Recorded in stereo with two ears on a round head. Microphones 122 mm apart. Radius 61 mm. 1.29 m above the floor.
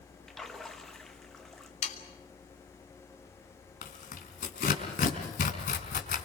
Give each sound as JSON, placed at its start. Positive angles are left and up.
{"t": 0.3, "sound": "a splash", "side_deg": 0, "distance_m": 1.9}
{"t": 1.8, "sound": "sawing", "side_deg": 55, "distance_m": 3.0}
{"t": 3.8, "sound": "tearing paper", "side_deg": 65, "distance_m": 4.5}